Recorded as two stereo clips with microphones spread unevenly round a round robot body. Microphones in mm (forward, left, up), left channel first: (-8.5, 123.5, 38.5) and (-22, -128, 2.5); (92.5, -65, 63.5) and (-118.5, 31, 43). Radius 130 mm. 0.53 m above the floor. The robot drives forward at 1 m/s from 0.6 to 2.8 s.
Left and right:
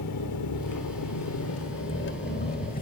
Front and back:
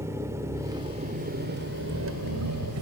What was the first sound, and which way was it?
An engine running, 80° left.